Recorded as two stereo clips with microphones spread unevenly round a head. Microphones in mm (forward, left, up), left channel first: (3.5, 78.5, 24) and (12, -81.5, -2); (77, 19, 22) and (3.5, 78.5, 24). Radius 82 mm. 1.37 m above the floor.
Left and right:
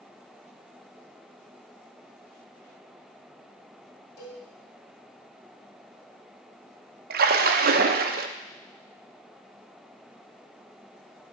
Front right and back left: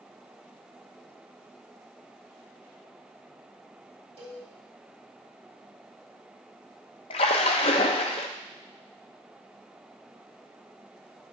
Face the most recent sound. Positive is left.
turn(degrees=-55)